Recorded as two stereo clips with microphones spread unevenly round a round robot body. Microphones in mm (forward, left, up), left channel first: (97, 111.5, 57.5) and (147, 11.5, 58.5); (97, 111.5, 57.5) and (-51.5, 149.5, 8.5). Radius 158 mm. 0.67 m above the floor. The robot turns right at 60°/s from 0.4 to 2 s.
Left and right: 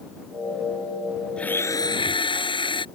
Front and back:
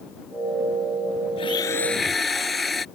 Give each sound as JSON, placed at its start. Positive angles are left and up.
{"t": 1.4, "sound": "a blender", "azimuth_deg": 35}